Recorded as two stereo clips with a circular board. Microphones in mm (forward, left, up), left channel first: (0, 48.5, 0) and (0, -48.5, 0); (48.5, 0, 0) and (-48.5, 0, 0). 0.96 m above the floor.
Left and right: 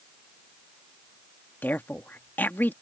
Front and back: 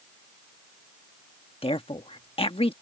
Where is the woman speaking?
20° left.